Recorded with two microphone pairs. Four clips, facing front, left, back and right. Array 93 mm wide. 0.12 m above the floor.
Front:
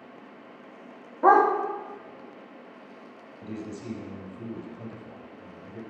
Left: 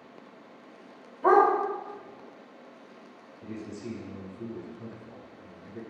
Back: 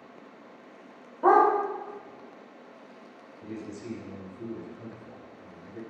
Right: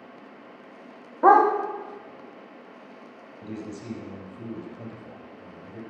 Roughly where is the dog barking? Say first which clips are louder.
Right 4 dB, front 1 dB; right.